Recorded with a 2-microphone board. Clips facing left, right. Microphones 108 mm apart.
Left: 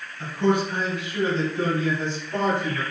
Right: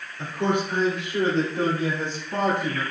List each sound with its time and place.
0.2 s a man speaking: 55° right (ahead or behind), 2 m; by 2.8 s 60° right (ahead or behind), 3.5 m